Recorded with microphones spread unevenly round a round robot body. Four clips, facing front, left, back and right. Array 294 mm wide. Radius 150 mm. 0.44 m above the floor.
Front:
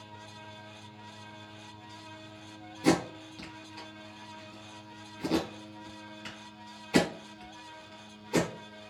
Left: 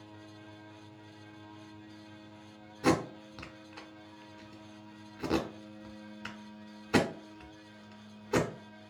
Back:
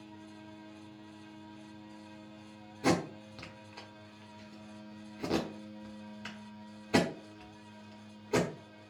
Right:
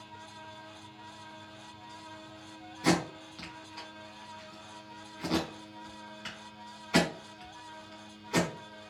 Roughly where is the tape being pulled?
Behind left.